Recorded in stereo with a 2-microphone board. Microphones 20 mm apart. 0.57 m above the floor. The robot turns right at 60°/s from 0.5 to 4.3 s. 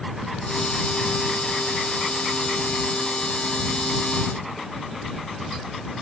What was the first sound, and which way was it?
Only background noise.